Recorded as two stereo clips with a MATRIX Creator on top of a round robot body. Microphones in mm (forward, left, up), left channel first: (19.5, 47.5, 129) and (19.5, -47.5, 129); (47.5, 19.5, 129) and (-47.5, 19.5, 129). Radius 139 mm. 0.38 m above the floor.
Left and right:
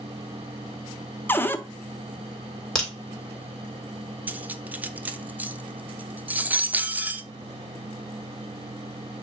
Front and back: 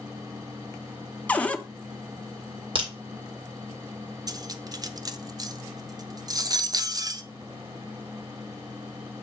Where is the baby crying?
I don't hear a baby crying.